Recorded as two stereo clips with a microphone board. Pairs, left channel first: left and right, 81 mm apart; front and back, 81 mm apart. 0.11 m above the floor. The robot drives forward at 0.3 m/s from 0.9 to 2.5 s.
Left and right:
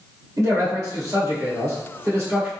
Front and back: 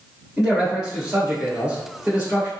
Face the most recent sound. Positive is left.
turn(degrees=-120)